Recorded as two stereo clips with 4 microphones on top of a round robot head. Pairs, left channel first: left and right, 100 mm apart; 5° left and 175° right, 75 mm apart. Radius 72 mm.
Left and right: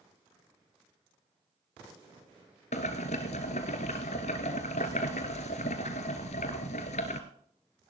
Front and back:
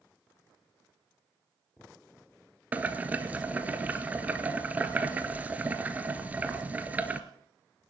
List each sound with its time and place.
2.7 s boiling: 120° left, 1.3 m